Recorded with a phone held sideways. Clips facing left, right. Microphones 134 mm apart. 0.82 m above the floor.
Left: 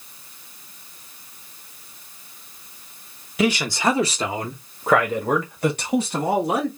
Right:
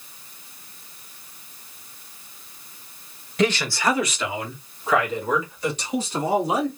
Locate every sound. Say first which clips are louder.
3.4 s a man speaking: left 1 dB; 5° left (ahead or behind), 1.1 m; by 6.7 s 60° left (ahead or behind), 2.5 m